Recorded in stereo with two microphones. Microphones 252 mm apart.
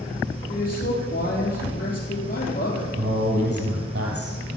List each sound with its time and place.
0.5 s a man speaking: 35° left (ahead or behind), 3.5 m
3.0 s a man speaking: 65° right (ahead or behind), 3.5 m